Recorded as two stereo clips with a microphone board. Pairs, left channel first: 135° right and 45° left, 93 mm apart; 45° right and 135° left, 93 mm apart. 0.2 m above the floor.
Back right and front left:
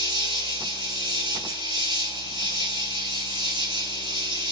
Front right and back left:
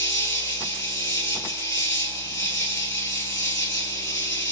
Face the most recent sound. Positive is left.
turn(degrees=10)